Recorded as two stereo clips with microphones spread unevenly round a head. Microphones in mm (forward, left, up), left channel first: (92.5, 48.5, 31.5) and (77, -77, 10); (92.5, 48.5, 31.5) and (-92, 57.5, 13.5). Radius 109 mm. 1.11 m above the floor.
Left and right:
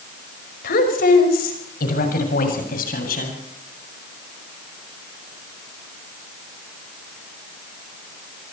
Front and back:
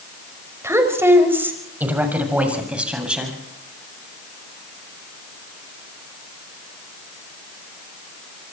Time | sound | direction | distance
0.6 | a woman speaking | 100° left | 6 m